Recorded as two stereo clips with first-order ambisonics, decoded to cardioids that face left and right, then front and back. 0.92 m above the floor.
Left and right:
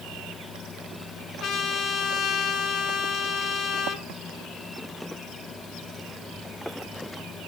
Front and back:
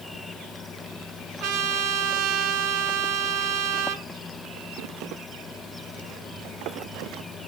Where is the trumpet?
150° left, 2.5 m.